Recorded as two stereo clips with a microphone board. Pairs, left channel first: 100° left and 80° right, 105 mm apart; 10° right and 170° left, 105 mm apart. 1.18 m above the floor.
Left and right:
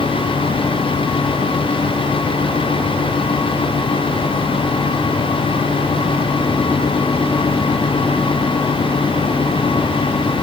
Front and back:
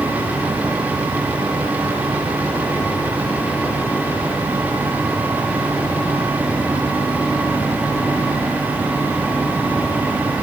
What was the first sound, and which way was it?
Only background noise.